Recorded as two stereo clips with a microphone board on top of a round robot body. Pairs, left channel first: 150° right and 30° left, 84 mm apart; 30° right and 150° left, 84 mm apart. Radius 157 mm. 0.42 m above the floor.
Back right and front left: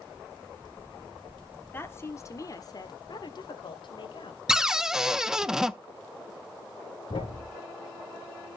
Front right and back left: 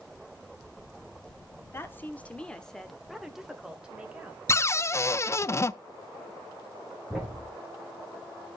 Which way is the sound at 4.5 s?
50° right.